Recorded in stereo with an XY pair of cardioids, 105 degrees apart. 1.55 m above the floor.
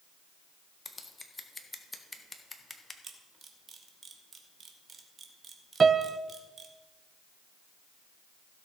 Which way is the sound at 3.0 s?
40° right.